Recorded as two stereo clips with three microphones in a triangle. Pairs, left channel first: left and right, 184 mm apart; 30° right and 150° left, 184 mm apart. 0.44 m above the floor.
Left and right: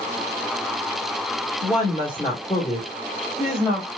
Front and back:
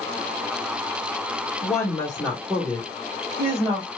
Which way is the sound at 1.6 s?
30° left.